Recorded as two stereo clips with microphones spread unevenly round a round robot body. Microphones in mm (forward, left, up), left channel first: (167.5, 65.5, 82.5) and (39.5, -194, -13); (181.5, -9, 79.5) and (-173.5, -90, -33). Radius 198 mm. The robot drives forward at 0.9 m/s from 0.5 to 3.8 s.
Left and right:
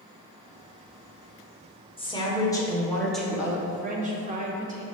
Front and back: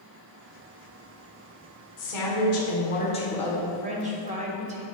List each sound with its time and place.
2.0 s a woman speaking: 20° right, 1.7 m; by 3.6 s 125° right, 1.2 m
3.7 s a woman speaking: 120° right, 1.0 m; by 4.8 s 130° right, 1.1 m